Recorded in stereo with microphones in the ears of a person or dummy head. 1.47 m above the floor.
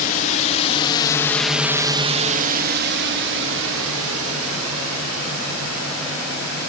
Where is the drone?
45° left (ahead or behind); by 6.7 s 85° right.